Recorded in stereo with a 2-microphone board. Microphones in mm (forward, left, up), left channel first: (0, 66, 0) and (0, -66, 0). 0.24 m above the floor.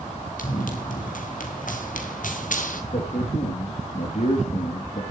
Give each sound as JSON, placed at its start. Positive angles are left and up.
{"t": 0.4, "sound": "running footsteps", "side_deg": 80, "distance_m": 4.0}
{"t": 2.9, "sound": "a man speaking", "side_deg": 60, "distance_m": 5.5}